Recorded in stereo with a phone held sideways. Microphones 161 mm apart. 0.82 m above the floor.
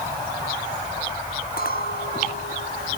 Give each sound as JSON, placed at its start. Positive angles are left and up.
{"t": 1.6, "sound": "a clink", "side_deg": 75}